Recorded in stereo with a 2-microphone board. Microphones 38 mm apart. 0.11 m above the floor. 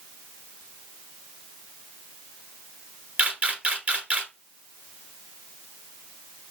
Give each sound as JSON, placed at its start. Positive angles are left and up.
{"t": 3.2, "sound": "a camera shutter", "side_deg": -30, "distance_m": 1.6}